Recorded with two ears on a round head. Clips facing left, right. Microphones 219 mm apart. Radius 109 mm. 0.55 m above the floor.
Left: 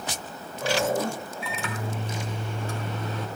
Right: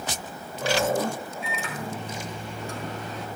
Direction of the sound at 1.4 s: 65° left (ahead or behind).